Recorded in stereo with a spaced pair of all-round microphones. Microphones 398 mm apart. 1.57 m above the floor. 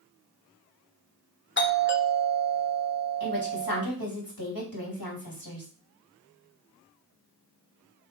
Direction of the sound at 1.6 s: 30° left (ahead or behind).